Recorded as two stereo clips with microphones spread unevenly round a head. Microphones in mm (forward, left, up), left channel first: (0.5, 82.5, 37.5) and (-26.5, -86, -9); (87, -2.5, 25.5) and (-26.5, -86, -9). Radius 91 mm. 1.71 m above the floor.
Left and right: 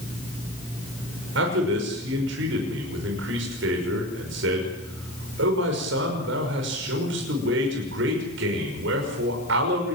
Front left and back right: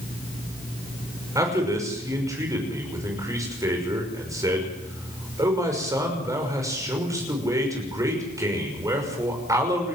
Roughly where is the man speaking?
Right.